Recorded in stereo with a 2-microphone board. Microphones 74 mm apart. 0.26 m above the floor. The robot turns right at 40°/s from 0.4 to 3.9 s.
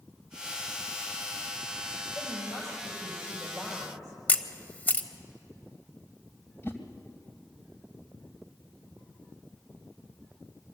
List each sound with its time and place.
2.1 s a woman speaking: 115° left, 6.5 m; by 4.2 s 175° right, 6.5 m
4.3 s a camera shutter: 20° left (ahead or behind), 1.0 m
6.6 s a whoosh: 35° left (ahead or behind), 1.7 m